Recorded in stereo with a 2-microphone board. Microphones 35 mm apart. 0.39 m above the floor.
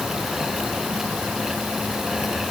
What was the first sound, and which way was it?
Only background noise.